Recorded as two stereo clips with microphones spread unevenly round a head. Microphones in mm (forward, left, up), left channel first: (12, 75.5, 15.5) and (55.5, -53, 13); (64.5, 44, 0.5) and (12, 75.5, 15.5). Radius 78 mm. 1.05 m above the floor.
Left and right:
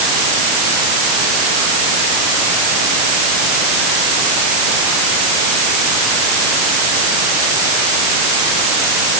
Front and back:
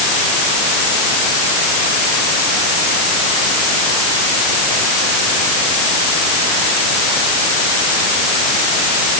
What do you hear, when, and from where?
Only background noise.